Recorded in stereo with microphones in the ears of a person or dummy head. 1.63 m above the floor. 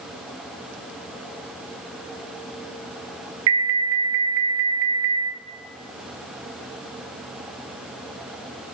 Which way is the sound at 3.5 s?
70° right (ahead or behind).